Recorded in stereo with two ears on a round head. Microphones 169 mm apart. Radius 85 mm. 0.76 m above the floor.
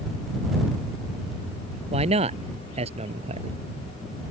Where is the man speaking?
35° right (ahead or behind).